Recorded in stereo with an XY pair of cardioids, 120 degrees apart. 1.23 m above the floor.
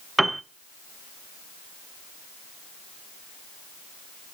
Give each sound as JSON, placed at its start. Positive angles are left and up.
{"t": 0.2, "sound": "a piano", "azimuth_deg": -5, "distance_m": 0.5}